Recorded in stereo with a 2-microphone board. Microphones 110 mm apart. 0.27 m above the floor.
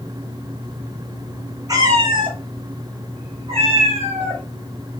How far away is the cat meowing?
About 0.7 m.